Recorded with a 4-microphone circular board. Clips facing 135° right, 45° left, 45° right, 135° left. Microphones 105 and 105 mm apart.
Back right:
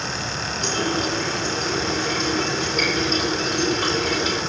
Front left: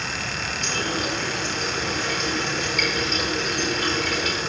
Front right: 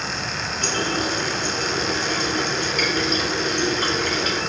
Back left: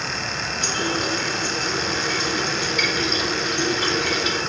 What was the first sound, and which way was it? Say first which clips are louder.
A running tap: back right 4 dB, front right 1 dB; 80° right.